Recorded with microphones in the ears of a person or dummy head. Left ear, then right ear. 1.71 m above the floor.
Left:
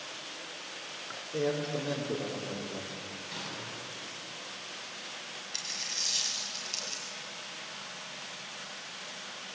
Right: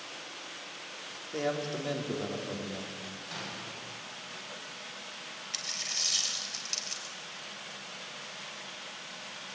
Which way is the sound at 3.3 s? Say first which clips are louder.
Even; 40° right (ahead or behind).